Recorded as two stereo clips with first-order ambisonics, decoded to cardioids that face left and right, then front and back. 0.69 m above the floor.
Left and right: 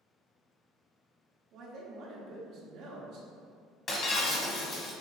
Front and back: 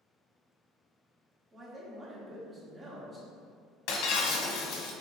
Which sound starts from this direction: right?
A man speaking, at 1.5 s.